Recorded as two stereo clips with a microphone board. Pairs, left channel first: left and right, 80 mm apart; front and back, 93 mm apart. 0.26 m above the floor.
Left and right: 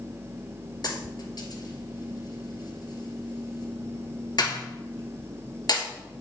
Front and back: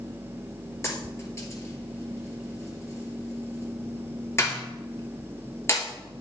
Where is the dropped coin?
60° left, 2 m.